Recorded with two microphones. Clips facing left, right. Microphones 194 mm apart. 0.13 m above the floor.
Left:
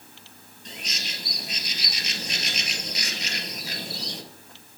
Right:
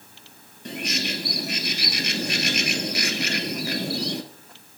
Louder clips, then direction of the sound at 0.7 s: Right 11 dB; 65° right (ahead or behind).